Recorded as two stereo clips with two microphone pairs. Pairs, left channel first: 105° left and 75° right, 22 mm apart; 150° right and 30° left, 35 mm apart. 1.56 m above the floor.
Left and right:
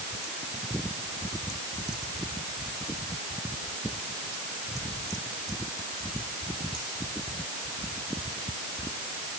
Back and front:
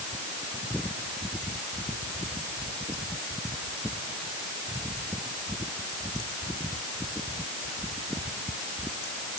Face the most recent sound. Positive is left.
No sound to turn to.